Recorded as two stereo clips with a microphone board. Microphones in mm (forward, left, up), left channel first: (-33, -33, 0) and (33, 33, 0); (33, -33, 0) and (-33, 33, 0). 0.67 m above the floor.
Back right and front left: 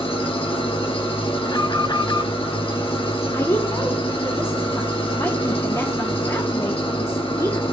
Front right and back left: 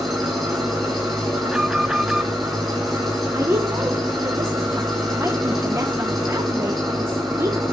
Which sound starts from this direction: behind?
A woman speaking, at 3.3 s.